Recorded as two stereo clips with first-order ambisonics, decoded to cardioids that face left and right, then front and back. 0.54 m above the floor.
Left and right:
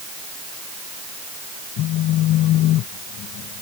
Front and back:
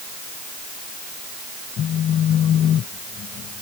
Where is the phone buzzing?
55° left.